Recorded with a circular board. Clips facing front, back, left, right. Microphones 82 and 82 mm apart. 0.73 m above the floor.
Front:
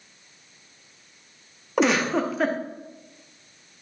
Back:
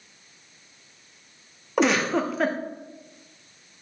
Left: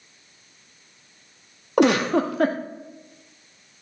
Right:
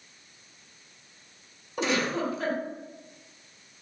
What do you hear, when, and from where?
1.8 s a giggle: 90° left, 0.7 m